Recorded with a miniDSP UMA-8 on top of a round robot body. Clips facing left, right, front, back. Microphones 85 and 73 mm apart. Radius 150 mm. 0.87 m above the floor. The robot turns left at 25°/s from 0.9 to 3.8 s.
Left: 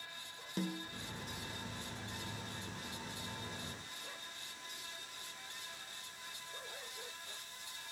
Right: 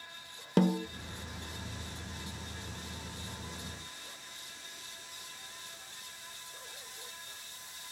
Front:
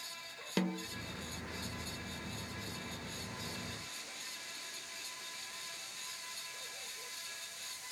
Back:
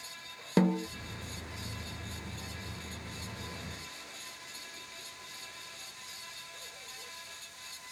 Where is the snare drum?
120° right, 0.5 m.